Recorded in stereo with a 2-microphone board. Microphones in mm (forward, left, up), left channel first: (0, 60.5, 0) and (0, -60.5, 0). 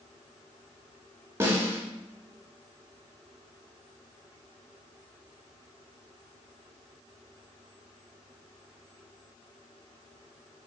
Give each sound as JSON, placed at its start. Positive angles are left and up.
{"t": 1.4, "sound": "a snare drum", "side_deg": -20, "distance_m": 0.8}